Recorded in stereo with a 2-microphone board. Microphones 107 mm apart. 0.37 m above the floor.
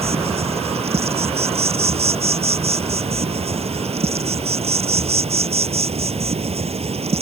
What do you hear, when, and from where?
0.0 s an insect: 85° right